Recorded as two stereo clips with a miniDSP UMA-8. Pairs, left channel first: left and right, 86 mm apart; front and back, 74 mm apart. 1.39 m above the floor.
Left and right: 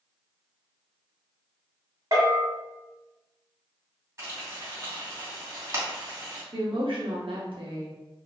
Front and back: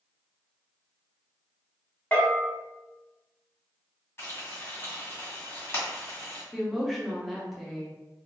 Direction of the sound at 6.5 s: 90° right.